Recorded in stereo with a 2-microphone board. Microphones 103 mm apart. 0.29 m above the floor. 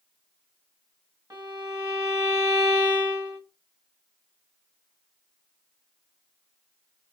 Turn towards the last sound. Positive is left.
turn(degrees=-40)  # may be behind; listen again after turning